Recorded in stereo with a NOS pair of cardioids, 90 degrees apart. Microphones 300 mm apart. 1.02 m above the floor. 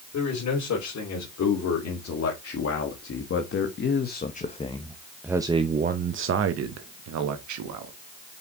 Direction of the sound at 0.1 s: 60° left.